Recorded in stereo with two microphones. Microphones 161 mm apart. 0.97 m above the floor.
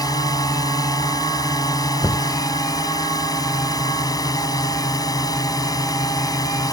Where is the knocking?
5° right (ahead or behind).